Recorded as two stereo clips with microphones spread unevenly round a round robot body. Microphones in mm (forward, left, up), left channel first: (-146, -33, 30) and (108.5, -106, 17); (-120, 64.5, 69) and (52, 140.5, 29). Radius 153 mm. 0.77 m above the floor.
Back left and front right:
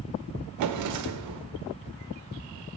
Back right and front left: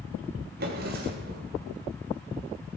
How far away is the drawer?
About 1.4 m.